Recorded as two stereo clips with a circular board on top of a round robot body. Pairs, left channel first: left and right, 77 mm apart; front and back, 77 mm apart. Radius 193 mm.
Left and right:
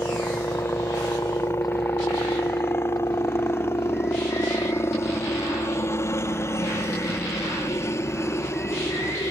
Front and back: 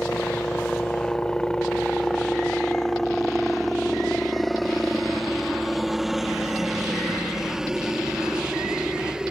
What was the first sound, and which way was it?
A helicopter, 65° left.